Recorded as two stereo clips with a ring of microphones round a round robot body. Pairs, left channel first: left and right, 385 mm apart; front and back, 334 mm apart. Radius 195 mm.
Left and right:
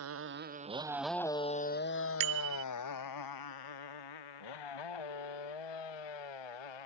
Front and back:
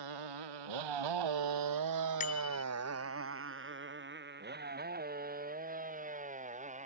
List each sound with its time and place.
0.0 s a motorcycle: 145° right; by 6.9 s 110° left
2.2 s a bicycle bell: 70° right